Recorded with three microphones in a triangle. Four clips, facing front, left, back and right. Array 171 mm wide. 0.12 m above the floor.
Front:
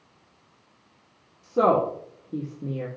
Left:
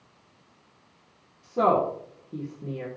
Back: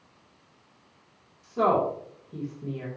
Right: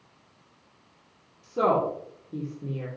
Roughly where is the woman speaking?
Ahead.